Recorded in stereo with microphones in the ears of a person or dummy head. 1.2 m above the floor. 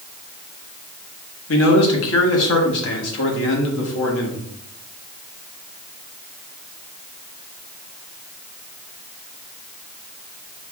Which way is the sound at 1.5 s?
70° left (ahead or behind).